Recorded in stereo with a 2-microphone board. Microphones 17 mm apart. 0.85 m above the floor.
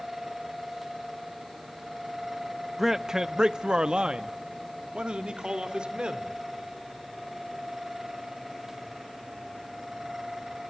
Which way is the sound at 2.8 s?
15° right (ahead or behind).